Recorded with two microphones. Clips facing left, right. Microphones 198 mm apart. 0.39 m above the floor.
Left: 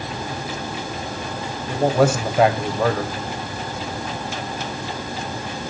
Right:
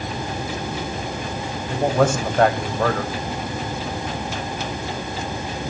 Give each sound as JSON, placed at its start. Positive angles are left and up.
{"t": 1.7, "sound": "a man speaking", "side_deg": 5, "distance_m": 1.9}